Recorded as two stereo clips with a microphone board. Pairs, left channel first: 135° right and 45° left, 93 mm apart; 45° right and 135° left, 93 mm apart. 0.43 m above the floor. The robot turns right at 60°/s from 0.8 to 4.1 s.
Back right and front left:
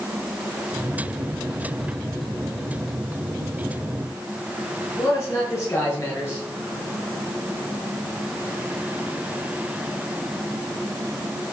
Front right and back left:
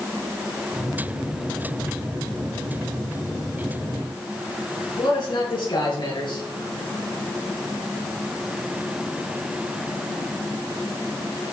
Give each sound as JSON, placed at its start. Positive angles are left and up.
{"t": 5.0, "sound": "a man speaking", "azimuth_deg": -80, "distance_m": 9.0}